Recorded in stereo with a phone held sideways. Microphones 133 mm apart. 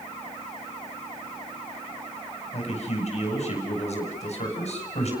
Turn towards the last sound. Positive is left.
turn(degrees=50)  # may be behind; listen again after turning